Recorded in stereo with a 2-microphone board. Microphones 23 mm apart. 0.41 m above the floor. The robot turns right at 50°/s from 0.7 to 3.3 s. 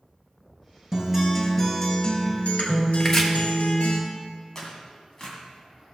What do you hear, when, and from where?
0.9 s a guitar: 20° right, 2.5 m; by 4.0 s 100° left, 2.5 m
3.0 s chopping: 20° left (ahead or behind), 1.4 m
4.5 s tearing paper: 25° left (ahead or behind), 2 m